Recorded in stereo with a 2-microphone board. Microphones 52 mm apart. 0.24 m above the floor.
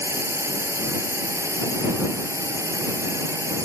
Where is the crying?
I don't hear crying.